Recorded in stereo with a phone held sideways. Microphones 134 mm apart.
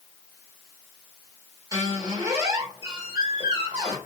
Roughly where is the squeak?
Right.